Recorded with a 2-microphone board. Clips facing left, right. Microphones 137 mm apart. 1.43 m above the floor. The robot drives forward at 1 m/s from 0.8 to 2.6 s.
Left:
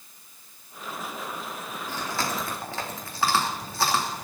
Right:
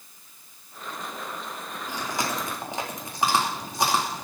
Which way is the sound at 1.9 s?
15° right (ahead or behind).